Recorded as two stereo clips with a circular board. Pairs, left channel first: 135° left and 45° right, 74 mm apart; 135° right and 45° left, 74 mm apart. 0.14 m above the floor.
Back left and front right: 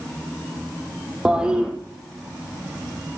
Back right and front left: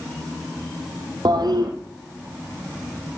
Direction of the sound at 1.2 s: 35° left.